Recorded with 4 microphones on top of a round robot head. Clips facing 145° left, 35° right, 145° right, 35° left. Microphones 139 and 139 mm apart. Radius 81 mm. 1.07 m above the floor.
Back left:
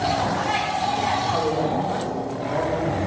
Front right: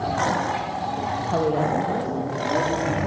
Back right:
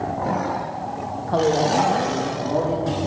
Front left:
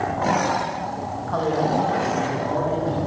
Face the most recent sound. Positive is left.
turn(degrees=-90)